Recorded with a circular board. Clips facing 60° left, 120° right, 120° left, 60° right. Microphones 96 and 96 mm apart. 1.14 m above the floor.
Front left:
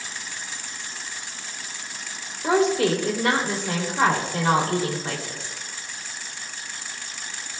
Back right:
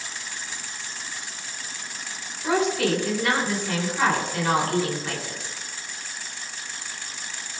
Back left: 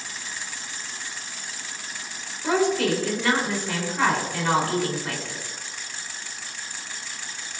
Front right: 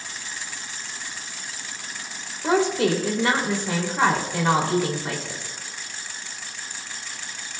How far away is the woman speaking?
About 3 m.